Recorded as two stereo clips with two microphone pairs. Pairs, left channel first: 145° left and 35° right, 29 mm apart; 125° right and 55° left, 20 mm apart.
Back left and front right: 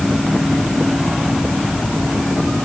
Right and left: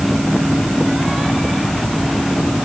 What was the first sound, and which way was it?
Only background noise.